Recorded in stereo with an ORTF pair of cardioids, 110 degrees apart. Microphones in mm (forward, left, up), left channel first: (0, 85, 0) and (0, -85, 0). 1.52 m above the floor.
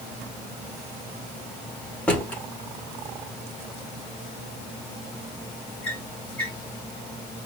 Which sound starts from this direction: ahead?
A drawer, at 2.1 s.